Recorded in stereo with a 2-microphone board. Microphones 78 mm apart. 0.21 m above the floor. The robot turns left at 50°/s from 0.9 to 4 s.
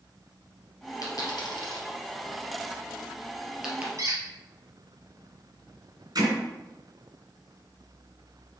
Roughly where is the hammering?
Right.